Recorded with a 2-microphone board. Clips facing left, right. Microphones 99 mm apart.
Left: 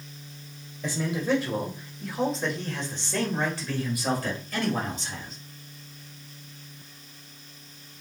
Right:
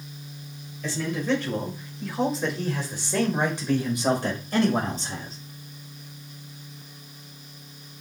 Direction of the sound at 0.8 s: 20° left (ahead or behind).